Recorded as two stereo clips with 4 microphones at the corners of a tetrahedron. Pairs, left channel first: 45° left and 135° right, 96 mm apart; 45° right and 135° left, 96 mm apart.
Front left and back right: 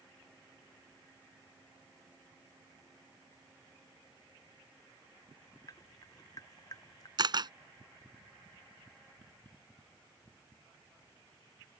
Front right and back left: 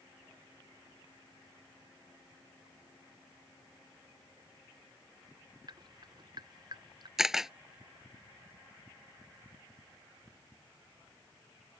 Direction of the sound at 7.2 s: 140° right.